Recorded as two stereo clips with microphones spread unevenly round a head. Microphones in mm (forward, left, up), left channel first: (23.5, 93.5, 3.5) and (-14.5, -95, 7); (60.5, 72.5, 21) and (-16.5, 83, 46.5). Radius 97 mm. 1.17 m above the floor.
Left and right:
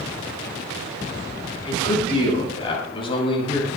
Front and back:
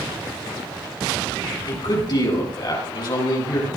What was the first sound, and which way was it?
A man speaking, 15° left.